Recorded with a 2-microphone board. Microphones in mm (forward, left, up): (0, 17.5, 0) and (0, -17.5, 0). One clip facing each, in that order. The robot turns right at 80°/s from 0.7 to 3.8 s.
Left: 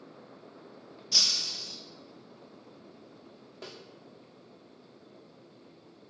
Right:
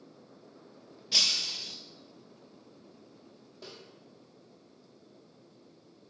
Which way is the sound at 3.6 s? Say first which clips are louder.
Left 3 dB; 75° left (ahead or behind).